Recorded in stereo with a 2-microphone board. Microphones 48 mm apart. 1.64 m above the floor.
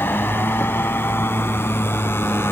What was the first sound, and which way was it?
A motorcycle, 50° left (ahead or behind).